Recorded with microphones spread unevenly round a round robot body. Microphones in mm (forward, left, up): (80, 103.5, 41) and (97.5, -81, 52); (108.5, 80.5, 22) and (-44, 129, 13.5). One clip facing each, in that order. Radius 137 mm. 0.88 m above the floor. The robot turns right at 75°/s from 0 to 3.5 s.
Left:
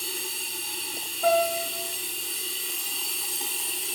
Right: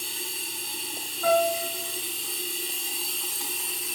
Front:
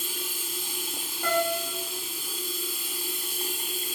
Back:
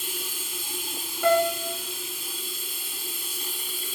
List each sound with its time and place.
0.0 s running water: 130° left, 1.4 m; by 3.9 s 30° left, 1.4 m
1.2 s a piano: 175° left, 0.8 m; by 1.8 s 145° right, 0.8 m